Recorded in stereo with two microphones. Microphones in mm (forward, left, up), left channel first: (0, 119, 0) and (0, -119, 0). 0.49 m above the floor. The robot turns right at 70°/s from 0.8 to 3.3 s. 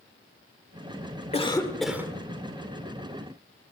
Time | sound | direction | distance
1.3 | a cough | 145° left | 1.3 m